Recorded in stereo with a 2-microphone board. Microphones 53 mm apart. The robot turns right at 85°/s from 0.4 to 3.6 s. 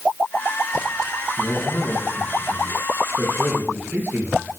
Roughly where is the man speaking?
Left.